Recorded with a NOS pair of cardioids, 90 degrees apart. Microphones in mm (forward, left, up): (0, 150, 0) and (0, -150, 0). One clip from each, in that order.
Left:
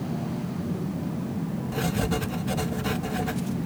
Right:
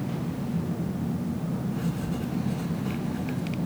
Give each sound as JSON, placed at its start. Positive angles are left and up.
{"t": 1.7, "sound": "writing", "azimuth_deg": 65, "distance_m": 0.7}